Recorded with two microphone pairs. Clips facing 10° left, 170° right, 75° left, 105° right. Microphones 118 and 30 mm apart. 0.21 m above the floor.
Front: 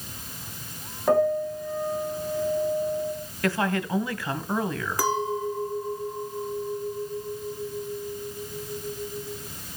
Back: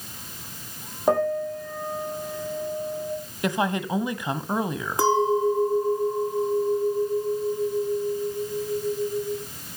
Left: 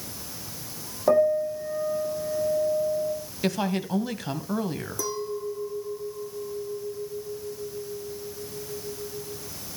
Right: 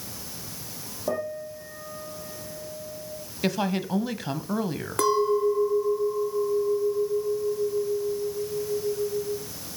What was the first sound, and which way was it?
A piano, 125° left.